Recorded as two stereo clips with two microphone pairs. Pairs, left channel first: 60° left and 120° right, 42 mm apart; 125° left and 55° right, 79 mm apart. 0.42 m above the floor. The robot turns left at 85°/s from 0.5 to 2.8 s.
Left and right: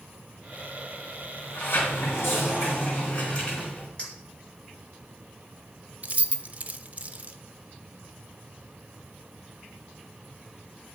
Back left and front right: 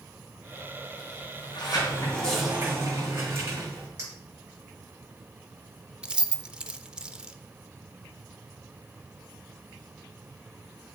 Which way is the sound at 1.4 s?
125° left.